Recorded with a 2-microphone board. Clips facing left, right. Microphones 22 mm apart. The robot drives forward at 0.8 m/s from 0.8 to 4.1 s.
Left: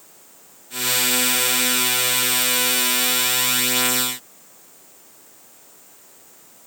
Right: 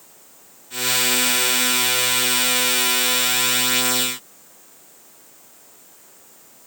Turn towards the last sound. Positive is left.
No sound to turn to.